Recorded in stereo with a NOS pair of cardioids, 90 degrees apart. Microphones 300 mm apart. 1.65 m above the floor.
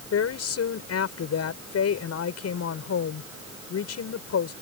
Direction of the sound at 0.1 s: 55° left.